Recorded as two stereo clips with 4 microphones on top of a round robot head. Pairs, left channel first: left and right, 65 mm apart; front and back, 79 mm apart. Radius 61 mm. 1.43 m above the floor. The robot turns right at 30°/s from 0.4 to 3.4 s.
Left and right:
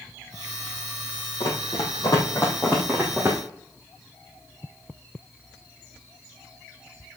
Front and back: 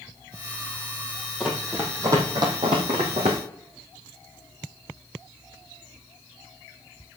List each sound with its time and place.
1.4 s running footsteps: 100° left, 2.5 m; by 3.4 s 155° right, 3 m